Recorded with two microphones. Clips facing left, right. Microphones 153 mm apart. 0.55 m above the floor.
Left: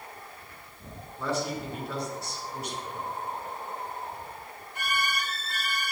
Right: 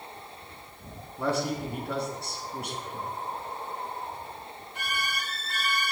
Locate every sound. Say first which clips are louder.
1.2 s a man speaking: right 2 dB; 60° right (ahead or behind), 4.5 m